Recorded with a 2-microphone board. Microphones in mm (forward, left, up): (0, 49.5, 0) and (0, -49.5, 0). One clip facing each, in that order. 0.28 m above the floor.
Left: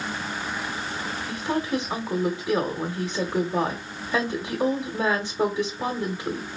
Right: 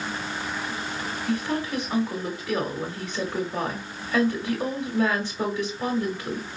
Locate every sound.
1.3 s a woman speaking: 15° left (ahead or behind), 1.1 m